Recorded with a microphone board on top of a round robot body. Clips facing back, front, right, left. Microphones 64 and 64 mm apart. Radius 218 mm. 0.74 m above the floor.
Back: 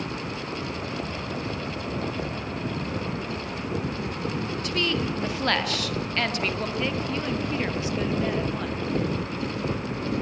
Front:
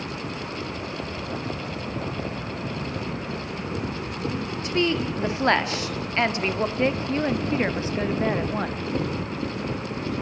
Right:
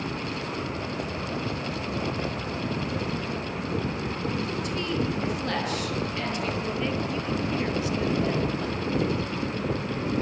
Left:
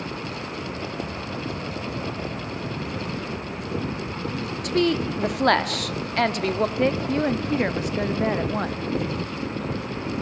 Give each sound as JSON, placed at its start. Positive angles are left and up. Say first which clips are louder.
{"t": 4.6, "sound": "a woman speaking", "louder": "front 4 dB, left 11 dB", "azimuth_deg": 65, "distance_m": 2.0}
{"t": 6.8, "sound": "a woman speaking", "louder": "front 6 dB, left 7 dB", "azimuth_deg": 55, "distance_m": 1.3}